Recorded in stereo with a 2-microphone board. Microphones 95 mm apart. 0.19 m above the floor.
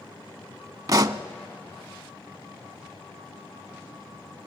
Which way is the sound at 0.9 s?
40° right (ahead or behind).